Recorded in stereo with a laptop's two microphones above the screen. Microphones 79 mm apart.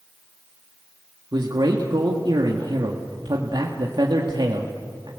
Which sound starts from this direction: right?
A man speaking, at 1.3 s.